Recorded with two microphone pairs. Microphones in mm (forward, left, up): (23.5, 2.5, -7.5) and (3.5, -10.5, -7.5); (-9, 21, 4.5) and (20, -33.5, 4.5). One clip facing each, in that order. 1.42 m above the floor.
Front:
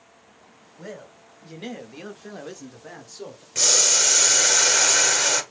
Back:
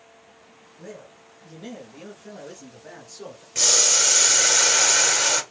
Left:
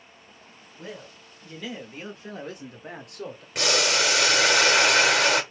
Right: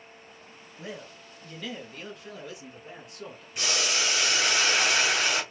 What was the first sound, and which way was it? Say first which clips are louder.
A man speaking: front 2 dB, even; 20° left.